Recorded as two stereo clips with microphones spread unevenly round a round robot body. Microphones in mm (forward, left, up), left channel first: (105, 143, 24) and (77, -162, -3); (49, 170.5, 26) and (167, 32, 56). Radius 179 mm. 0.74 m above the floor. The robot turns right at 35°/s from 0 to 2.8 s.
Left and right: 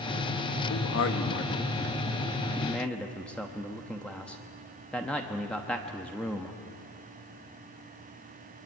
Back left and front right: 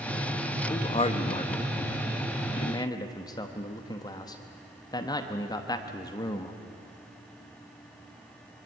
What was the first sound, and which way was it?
A man speaking, 105° left.